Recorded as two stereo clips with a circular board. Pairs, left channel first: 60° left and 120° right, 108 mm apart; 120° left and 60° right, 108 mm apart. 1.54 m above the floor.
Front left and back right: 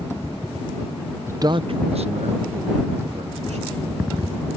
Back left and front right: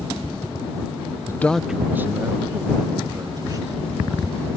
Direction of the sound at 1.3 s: 175° left.